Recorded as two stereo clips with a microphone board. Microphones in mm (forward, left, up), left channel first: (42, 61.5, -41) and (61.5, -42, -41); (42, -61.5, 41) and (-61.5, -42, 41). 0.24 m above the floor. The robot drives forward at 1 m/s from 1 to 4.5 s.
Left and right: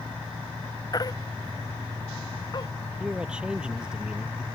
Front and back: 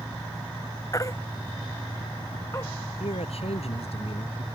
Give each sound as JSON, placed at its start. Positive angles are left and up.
{"t": 0.9, "sound": "a baby crying", "azimuth_deg": 50}
{"t": 3.0, "sound": "a man speaking", "azimuth_deg": 0}